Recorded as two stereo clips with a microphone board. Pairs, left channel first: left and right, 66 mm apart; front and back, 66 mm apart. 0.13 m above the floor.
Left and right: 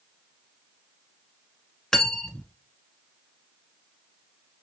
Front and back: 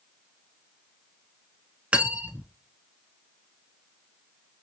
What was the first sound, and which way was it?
Cutlery clinking, 155° left.